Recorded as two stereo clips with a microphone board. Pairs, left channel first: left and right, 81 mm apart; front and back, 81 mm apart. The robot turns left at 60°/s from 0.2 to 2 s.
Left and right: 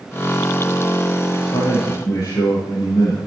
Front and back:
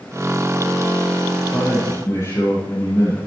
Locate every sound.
1.4 s a man speaking: 90° left, 6 m; by 3.2 s 50° left, 6 m